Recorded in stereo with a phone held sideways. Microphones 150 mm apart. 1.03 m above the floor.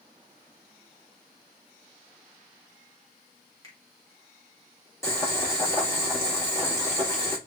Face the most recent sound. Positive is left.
turn(degrees=20)  # may be behind; listen again after turning